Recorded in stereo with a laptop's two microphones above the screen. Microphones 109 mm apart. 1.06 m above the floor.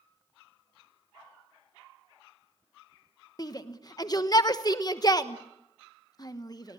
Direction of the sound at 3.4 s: 35° left (ahead or behind).